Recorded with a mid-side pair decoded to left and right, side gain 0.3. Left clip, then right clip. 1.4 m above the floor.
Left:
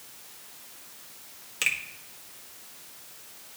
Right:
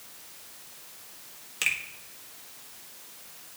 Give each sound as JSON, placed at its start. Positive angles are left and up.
{"t": 1.6, "sound": "a finger snap", "azimuth_deg": 10, "distance_m": 1.4}